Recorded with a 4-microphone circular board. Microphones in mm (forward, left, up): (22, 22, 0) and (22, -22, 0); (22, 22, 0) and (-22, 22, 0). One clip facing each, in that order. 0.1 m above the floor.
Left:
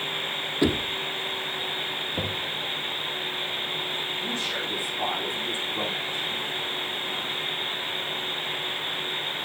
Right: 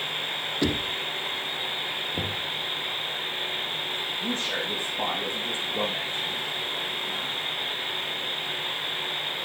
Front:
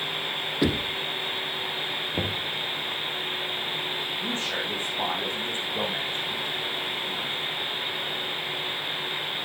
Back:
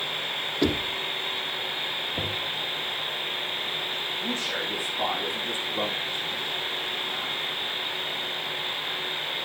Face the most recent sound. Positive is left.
turn(degrees=-55)